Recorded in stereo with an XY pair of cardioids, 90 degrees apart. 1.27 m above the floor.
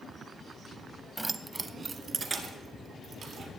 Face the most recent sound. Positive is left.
turn(degrees=-60)